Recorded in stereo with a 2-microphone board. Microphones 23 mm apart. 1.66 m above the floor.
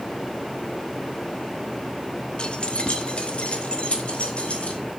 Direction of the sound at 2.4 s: 50° left (ahead or behind).